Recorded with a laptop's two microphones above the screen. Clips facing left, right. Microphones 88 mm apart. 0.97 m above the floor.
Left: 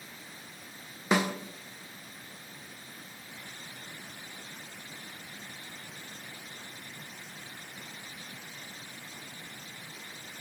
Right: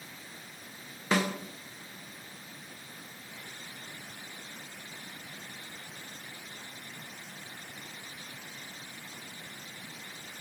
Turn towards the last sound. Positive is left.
turn(degrees=15)  # may be behind; listen again after turning